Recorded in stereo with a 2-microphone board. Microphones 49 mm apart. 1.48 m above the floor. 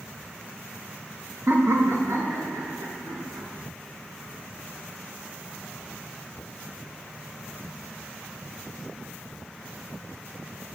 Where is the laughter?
45° right (ahead or behind), 0.8 m; by 3.5 s 85° right, 3 m.